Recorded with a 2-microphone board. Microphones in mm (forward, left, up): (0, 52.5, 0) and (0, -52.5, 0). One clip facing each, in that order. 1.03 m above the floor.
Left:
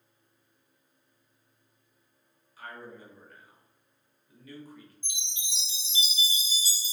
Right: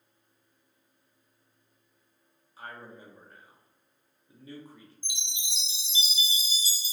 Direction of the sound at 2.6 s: 25° right (ahead or behind).